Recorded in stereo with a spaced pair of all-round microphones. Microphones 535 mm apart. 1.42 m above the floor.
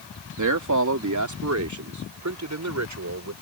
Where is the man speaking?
35° right (ahead or behind); by 3.3 s 30° right (ahead or behind).